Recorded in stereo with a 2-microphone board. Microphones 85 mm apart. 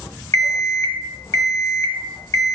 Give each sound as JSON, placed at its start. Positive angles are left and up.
{"t": 0.3, "sound": "an alarm clock", "side_deg": 40, "distance_m": 0.9}